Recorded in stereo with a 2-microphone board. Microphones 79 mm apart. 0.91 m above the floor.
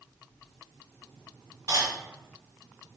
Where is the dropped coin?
50° right (ahead or behind), 1.7 m.